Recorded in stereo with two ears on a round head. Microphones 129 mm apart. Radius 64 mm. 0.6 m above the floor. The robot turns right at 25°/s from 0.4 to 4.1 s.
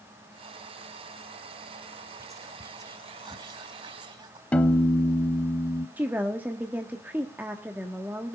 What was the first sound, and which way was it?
Whispering, 25° right (ahead or behind).